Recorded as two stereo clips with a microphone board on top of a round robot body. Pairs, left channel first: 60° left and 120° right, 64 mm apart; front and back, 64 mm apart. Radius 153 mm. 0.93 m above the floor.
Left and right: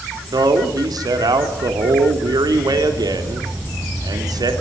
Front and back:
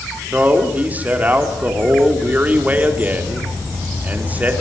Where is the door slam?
No door slam in this recording.